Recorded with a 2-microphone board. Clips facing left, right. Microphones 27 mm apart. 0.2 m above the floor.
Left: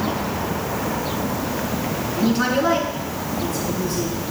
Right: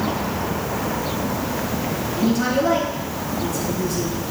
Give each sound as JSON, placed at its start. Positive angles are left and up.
{"t": 2.2, "sound": "a woman speaking", "side_deg": 45, "distance_m": 2.0}